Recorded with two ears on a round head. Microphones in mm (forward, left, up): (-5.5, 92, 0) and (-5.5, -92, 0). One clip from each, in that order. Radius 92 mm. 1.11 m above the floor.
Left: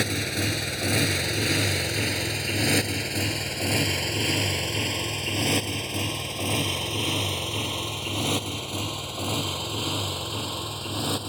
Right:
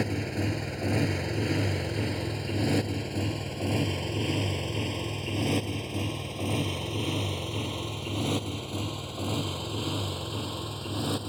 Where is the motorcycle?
80° left; by 11.3 s 30° left (ahead or behind).